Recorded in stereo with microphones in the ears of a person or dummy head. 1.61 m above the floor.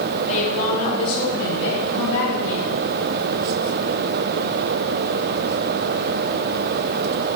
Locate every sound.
0.3 s a woman speaking: 40° left (ahead or behind), 2.5 m; by 2.7 s 75° left (ahead or behind), 4.5 m